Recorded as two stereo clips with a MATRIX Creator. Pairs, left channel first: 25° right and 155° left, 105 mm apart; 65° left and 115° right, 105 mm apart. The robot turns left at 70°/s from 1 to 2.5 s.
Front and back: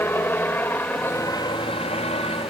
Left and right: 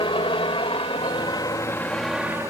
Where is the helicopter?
45° left; by 2.5 s 50° right.